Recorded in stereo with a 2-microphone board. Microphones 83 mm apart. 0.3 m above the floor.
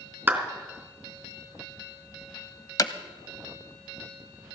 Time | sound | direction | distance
0.3 | a clap | 20° right (ahead or behind) | 3 m
2.8 | hammering | 45° left (ahead or behind) | 0.7 m